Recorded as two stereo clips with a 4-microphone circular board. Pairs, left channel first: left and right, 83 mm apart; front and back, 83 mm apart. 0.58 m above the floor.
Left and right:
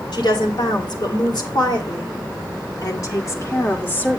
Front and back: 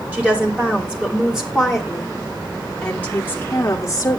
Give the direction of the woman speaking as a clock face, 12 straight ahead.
8 o'clock.